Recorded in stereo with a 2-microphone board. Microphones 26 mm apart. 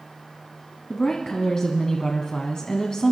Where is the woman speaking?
25° left (ahead or behind), 1.3 m.